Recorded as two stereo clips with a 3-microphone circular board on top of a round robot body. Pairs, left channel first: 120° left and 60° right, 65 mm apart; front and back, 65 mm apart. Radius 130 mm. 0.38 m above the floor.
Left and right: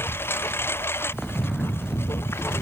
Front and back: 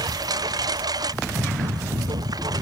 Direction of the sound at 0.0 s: 175° left.